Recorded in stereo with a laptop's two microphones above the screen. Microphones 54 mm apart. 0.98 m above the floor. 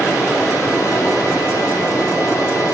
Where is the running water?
75° left (ahead or behind), 2.5 m.